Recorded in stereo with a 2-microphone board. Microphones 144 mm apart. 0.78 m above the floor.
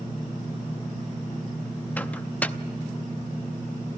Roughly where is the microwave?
Centre.